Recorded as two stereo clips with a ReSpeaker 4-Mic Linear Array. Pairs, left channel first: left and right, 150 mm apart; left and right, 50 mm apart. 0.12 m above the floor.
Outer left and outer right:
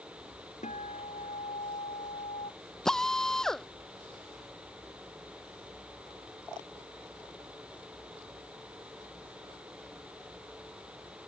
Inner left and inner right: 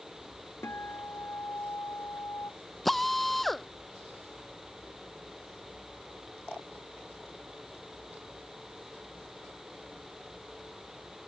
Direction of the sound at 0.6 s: 55° left (ahead or behind).